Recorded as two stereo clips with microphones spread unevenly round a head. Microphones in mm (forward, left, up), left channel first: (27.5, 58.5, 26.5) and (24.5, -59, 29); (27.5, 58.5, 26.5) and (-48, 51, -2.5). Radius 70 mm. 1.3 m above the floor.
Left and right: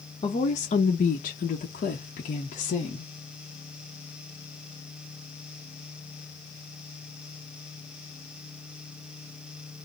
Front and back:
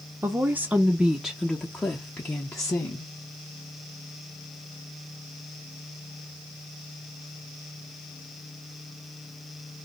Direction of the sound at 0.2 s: 135° left.